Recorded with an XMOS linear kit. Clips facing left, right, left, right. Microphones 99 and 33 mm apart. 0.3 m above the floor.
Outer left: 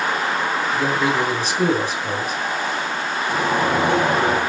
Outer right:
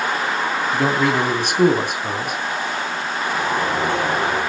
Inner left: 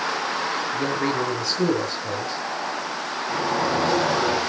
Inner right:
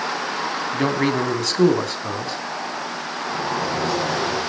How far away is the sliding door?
About 5 m.